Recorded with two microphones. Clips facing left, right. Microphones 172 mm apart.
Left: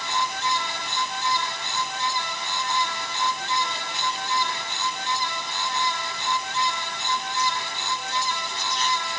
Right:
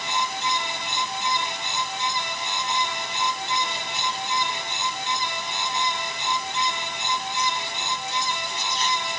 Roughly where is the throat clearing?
No throat clearing in this recording.